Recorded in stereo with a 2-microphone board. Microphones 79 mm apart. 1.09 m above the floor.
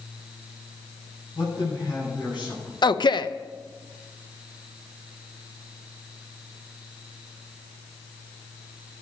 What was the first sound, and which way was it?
A man speaking, 75° left (ahead or behind).